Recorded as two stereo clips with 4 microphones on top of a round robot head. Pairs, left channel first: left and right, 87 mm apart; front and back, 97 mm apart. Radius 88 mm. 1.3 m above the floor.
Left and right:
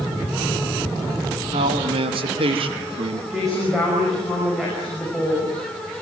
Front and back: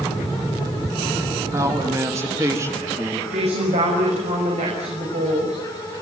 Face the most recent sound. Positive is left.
turn(degrees=180)